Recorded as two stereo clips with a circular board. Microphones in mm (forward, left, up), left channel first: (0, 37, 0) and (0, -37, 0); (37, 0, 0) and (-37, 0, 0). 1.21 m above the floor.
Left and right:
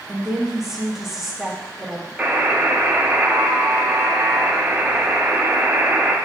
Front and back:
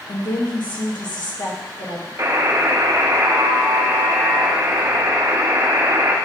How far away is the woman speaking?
About 1.6 m.